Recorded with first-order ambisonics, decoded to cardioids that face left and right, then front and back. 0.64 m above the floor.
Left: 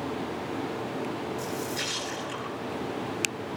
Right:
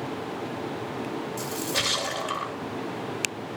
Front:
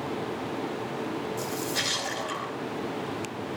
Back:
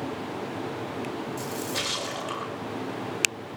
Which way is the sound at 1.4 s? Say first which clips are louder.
Right 8 dB, front 1 dB; 105° right.